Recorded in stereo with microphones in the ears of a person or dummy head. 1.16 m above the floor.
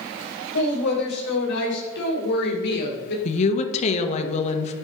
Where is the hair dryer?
I don't hear a hair dryer.